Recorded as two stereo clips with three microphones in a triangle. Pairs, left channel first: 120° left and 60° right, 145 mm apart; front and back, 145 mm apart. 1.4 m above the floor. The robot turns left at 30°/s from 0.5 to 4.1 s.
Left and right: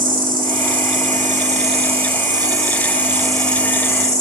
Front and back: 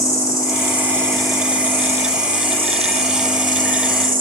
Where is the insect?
65° right, 1.4 m; by 4.2 s 175° right, 1.4 m.